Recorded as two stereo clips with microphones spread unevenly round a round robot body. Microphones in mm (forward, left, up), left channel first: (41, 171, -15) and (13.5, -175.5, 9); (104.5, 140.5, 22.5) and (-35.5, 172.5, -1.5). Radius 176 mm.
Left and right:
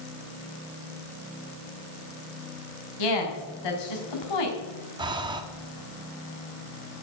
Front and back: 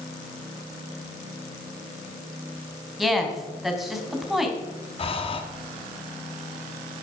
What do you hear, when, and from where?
3.0 s a woman speaking: 80° left, 4 m
5.0 s breathing: 25° right, 1.3 m